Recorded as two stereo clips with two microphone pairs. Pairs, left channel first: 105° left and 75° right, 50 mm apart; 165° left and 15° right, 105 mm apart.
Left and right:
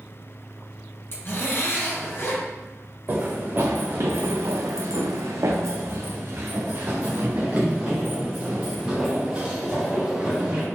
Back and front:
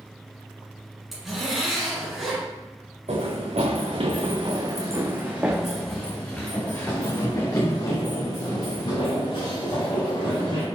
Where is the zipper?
75° left, 1.7 m.